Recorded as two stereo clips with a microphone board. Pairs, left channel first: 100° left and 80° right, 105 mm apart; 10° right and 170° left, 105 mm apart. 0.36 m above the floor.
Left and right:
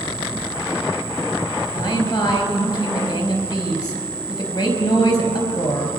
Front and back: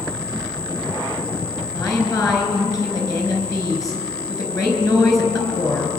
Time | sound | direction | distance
1.8 | a woman speaking | 50° left | 4.5 m